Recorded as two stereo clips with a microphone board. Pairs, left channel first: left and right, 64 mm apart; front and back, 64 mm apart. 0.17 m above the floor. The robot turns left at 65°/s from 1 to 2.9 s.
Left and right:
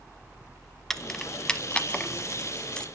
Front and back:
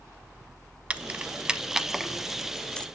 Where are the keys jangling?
160° left, 0.7 m; by 2.9 s 40° left, 0.7 m.